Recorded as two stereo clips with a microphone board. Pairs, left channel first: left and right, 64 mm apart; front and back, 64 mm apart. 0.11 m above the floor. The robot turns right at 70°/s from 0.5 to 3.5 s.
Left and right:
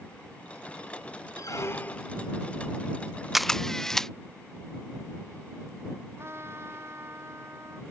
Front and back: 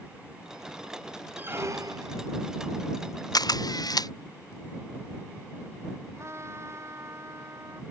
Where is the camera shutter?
5° right; by 4.1 s 5° left.